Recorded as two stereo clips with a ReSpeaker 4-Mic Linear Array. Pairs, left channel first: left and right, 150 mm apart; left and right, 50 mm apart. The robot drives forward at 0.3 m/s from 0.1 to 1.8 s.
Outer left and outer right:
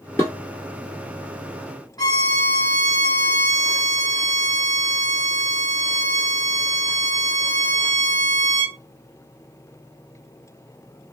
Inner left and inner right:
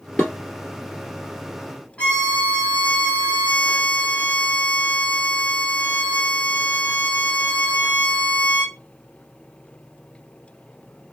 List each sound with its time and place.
0.2 s dishes clattering: 20° left (ahead or behind), 1.4 m
2.0 s a violin: 25° left (ahead or behind), 0.9 m